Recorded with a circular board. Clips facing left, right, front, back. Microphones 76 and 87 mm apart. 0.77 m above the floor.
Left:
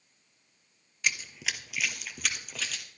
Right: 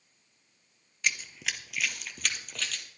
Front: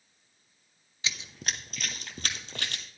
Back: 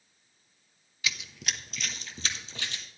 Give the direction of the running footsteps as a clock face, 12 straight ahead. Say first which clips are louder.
Even, even; 12 o'clock.